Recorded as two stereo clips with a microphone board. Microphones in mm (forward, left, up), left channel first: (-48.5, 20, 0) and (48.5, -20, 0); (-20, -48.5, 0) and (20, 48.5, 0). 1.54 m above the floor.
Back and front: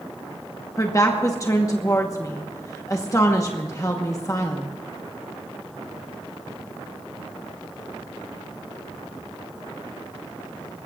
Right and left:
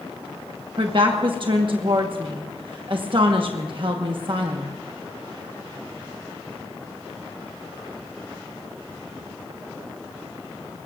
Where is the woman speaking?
100° left, 1.2 m.